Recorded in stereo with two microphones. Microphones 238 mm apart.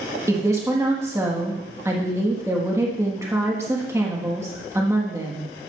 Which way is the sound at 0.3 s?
10° right (ahead or behind).